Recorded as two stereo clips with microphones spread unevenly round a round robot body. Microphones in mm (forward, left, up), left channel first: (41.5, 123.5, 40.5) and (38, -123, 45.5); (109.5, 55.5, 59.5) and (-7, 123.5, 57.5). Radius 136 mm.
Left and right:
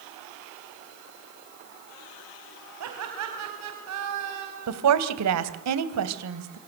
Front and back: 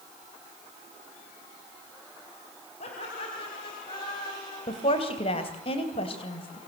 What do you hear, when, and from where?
2.8 s laughter: 80° right, 4.5 m; by 4.8 s 105° right, 4.5 m
4.7 s a woman speaking: 85° right, 2.5 m